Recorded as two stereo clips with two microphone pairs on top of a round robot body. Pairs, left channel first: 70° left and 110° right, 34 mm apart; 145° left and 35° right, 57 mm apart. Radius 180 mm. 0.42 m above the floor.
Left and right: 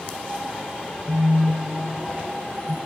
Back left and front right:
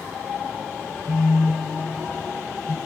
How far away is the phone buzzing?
About 0.7 m.